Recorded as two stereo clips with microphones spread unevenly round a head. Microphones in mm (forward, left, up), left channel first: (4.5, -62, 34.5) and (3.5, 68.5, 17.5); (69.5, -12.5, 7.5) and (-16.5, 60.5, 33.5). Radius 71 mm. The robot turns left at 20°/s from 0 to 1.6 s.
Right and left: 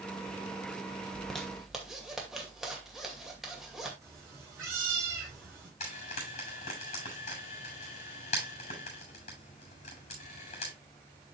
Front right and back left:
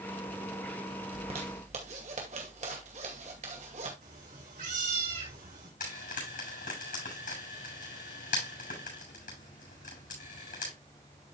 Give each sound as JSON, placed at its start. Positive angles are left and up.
{"t": 1.1, "sound": "a zipper", "azimuth_deg": -170, "distance_m": 2.0}
{"t": 4.0, "sound": "a cat meowing", "azimuth_deg": 160, "distance_m": 4.5}
{"t": 5.8, "sound": "frying", "azimuth_deg": -50, "distance_m": 7.0}